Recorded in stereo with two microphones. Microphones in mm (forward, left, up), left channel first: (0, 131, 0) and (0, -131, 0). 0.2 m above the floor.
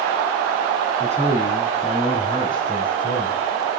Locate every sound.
1.0 s a man speaking: 25° left (ahead or behind), 2.5 m; by 3.8 s 15° left (ahead or behind), 3.5 m